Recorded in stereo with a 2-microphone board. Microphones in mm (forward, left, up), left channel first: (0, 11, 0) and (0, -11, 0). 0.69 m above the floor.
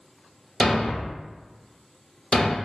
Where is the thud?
45° left (ahead or behind), 0.5 m.